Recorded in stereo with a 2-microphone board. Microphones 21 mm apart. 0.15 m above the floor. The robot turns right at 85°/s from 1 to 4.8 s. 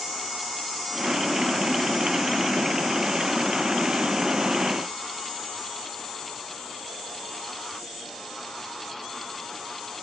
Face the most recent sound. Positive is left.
No sound to turn to.